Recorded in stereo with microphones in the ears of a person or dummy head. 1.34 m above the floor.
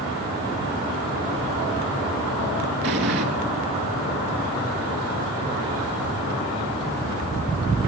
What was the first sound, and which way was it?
An explosion, 60° right (ahead or behind).